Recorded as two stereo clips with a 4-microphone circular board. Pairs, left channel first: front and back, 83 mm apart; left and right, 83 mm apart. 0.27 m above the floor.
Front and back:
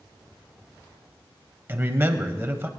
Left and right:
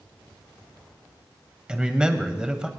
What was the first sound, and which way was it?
A man speaking, 155° right.